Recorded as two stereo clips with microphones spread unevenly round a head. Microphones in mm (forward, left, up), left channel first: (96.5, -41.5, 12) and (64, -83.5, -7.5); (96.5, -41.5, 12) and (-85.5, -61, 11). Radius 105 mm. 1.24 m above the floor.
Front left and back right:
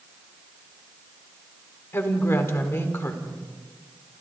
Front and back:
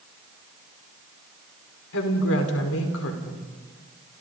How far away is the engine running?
No engine running in this recording.